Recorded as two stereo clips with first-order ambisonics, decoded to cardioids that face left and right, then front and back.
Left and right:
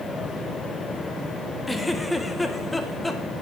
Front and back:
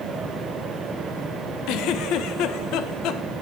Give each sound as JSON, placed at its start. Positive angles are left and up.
{"t": 1.7, "sound": "a giggle", "azimuth_deg": 5, "distance_m": 0.7}